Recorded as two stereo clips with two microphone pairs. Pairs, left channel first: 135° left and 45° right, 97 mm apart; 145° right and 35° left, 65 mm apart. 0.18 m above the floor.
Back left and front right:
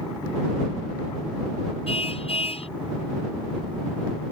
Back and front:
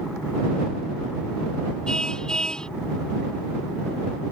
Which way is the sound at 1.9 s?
135° left.